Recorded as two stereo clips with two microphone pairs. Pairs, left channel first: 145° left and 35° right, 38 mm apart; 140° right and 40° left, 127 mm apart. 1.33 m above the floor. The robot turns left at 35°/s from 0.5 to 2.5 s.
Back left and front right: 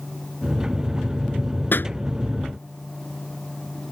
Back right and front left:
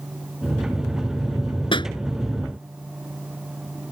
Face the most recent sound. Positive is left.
turn(degrees=145)